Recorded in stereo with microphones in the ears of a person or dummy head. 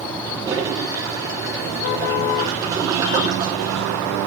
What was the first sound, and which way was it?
A toilet flushing, 15° right (ahead or behind).